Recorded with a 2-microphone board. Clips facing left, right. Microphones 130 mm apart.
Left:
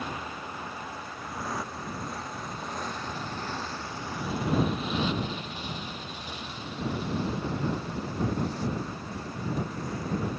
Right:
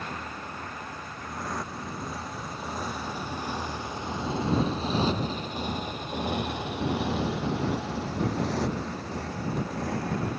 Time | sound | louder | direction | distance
0.0 | a motorcycle | left 1 dB | 10° left (ahead or behind) | ?